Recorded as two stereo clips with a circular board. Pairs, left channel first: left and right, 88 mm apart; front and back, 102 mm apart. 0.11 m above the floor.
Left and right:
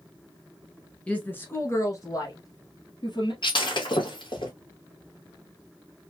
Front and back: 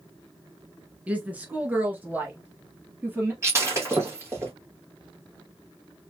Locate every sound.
1.1 s a woman speaking: 135° left, 1.2 m; by 3.3 s 110° left, 2.5 m
3.4 s breaking glass: 115° left, 1.8 m